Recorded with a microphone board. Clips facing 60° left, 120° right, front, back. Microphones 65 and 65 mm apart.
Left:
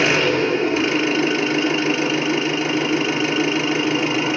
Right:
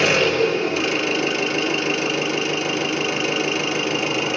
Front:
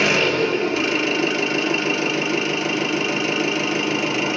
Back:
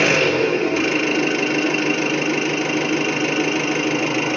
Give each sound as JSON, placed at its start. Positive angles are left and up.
{"t": 0.0, "sound": "an engine running", "azimuth_deg": 115, "distance_m": 1.6}